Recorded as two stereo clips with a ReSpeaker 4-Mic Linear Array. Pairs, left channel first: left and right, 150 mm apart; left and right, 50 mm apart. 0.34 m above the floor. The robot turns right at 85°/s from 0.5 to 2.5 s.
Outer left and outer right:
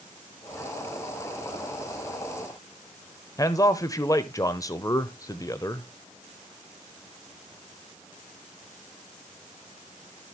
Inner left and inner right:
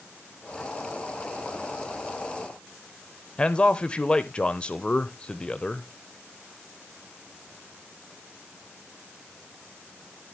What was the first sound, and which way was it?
A man speaking, 25° left (ahead or behind).